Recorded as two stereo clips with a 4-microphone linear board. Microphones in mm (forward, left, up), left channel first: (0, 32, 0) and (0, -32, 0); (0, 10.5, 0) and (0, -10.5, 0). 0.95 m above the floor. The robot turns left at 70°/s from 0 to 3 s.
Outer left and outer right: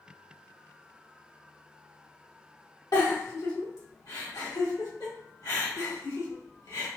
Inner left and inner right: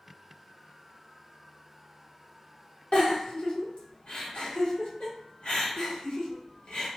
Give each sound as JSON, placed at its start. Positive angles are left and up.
{"t": 2.9, "sound": "a giggle", "side_deg": 70, "distance_m": 1.5}